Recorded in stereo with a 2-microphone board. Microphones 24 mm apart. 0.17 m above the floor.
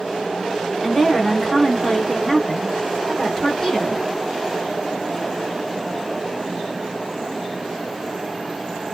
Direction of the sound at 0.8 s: Centre (ahead or behind).